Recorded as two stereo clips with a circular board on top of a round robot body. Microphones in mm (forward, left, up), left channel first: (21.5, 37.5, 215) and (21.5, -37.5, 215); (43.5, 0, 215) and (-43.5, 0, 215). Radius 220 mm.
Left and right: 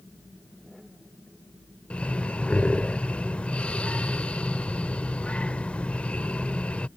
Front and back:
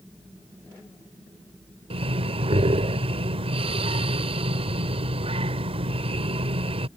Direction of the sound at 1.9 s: 165° left.